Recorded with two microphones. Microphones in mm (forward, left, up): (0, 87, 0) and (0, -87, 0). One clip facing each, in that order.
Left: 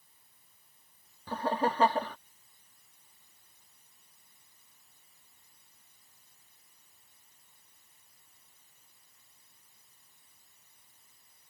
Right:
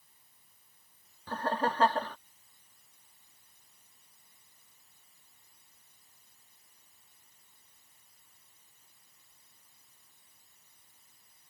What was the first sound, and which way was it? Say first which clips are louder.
Laughter: left 1 dB; 10° left (ahead or behind).